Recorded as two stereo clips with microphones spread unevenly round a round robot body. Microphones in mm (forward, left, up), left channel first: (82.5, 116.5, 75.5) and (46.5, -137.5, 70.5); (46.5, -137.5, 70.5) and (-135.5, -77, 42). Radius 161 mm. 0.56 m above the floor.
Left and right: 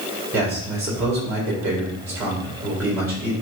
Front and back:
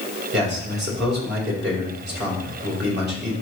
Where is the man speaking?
Straight behind, 3 m.